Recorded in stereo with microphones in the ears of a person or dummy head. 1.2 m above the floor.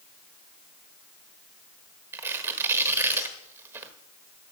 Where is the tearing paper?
15° right (ahead or behind), 1.2 m.